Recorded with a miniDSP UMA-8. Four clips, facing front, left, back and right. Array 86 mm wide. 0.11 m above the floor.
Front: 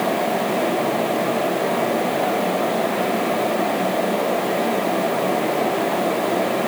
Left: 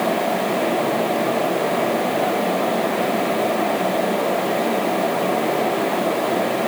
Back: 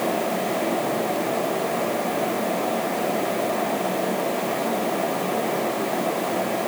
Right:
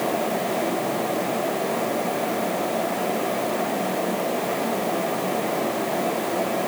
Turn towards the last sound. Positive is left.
No sound to turn to.